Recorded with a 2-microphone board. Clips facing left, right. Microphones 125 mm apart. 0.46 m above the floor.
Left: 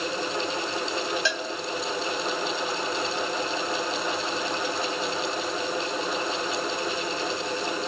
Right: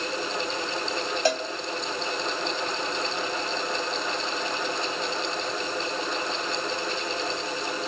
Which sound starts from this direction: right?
A cowbell, at 1.2 s.